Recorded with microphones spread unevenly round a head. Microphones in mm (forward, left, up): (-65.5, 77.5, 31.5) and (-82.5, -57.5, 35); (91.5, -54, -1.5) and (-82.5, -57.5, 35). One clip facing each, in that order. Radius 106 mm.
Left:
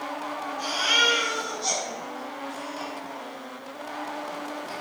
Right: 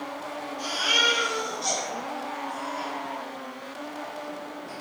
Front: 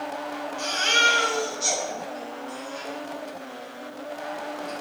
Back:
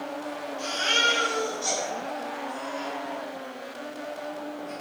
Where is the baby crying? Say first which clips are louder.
Left 1 dB, front 2 dB; 10° right, 6 m.